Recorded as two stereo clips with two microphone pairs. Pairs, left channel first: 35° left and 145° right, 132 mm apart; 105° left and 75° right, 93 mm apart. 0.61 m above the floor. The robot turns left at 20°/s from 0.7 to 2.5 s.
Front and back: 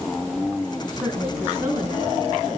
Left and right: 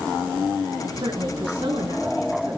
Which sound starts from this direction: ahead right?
A woman speaking, at 1.0 s.